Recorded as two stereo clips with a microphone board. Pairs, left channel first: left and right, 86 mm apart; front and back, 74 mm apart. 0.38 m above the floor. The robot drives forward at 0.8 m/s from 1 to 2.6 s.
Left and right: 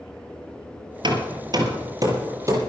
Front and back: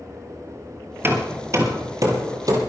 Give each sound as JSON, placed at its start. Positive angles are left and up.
{"t": 1.0, "sound": "hammering", "azimuth_deg": -120, "distance_m": 2.0}